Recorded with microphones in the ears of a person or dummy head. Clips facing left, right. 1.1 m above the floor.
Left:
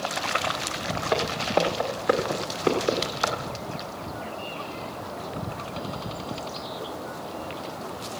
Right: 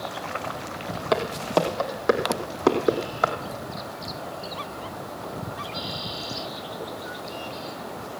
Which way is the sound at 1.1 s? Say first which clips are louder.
Right 2 dB; 50° right (ahead or behind).